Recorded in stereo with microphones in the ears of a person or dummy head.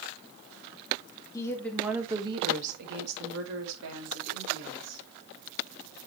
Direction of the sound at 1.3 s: 15° left (ahead or behind).